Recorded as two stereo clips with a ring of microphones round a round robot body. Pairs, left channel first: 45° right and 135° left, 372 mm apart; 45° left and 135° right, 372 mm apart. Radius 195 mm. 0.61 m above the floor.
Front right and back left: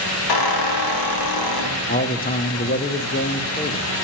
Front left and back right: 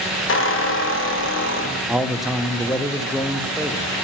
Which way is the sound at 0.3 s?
15° right.